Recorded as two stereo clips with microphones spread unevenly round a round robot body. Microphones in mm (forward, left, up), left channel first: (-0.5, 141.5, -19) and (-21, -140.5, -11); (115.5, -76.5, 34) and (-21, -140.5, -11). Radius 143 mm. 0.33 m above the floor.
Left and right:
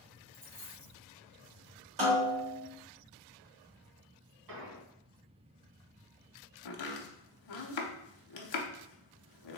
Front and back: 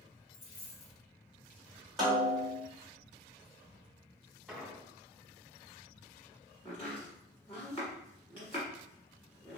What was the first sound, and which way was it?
A dropped coin, 10° right.